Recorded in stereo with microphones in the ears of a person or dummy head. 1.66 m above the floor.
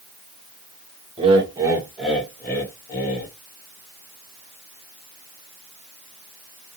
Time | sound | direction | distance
1.2 | laughter | 30° right (ahead or behind) | 0.9 m